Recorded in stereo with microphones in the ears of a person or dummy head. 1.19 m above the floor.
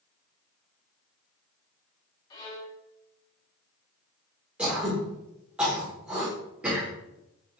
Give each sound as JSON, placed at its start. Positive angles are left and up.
{"t": 2.3, "sound": "a violin", "side_deg": 20, "distance_m": 0.9}
{"t": 4.6, "sound": "throat clearing", "side_deg": -5, "distance_m": 1.2}